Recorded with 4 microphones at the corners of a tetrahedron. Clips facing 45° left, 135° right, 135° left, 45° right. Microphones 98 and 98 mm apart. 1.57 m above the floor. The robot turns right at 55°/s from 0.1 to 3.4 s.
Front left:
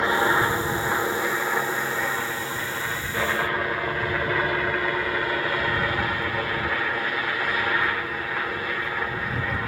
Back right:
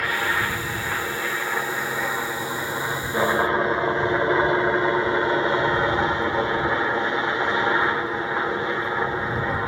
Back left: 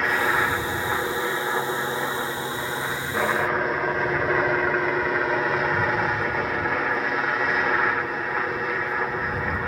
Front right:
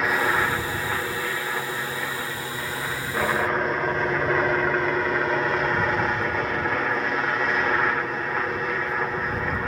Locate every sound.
0.0 s a helicopter: 40° left; by 9.7 s 140° right